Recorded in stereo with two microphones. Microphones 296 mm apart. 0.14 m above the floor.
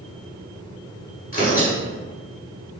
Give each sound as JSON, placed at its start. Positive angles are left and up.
{"t": 1.3, "sound": "tearing paper", "side_deg": 30, "distance_m": 1.6}